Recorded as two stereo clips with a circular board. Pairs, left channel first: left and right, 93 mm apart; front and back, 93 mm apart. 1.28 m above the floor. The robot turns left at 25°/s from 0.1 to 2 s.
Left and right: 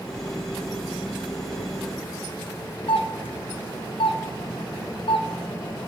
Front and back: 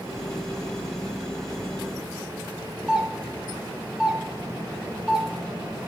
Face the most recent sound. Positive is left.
turn(degrees=100)